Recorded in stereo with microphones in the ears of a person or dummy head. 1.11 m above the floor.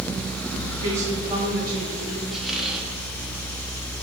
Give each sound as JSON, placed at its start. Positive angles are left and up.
{"t": 0.8, "sound": "a woman speaking", "side_deg": -10, "distance_m": 4.0}
{"t": 2.3, "sound": "a squeak", "side_deg": 0, "distance_m": 0.8}